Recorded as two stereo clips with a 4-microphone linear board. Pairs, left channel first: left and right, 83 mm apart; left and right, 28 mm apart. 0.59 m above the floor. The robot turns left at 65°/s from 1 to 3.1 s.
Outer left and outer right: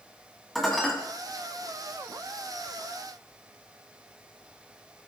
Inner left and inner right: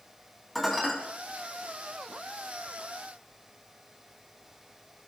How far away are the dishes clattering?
About 3 m.